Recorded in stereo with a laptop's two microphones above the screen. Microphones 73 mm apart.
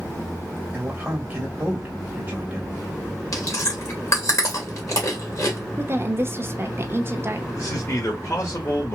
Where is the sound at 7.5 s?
40° left (ahead or behind), 1.8 m.